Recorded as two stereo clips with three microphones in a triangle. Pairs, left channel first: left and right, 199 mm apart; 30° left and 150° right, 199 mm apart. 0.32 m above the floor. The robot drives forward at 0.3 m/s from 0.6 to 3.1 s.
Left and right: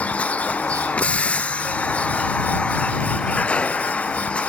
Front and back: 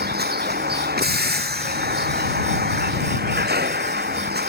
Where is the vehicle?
175° left.